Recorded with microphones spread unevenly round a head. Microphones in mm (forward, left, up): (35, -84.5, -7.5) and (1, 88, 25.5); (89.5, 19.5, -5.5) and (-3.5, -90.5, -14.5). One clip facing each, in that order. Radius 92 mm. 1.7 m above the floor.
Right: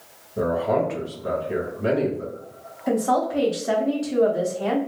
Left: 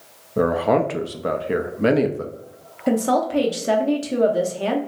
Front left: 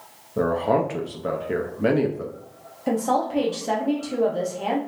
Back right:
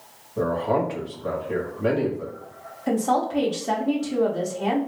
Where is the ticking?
No ticking in this recording.